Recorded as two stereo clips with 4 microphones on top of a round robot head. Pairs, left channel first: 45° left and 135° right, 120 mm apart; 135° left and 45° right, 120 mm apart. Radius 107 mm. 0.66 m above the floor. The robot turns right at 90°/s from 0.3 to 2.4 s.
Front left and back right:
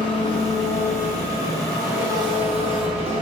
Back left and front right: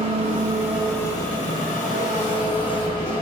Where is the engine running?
5° right, 4 m; by 3.2 s 175° right, 4 m.